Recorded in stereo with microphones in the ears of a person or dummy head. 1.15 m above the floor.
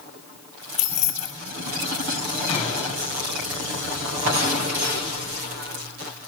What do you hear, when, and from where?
0.8 s keys jangling: 40° left (ahead or behind), 1.1 m
2.5 s a gunshot: 30° left (ahead or behind), 4 m